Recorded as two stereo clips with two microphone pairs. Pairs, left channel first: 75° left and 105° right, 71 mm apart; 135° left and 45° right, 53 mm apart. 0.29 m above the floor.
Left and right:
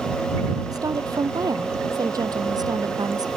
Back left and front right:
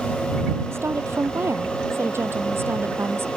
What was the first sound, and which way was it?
A woman speaking, 80° right.